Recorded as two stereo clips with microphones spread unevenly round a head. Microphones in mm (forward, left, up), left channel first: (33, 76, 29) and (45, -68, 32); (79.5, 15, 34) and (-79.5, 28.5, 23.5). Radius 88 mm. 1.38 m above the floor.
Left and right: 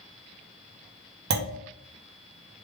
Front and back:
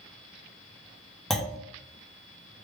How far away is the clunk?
About 0.6 m.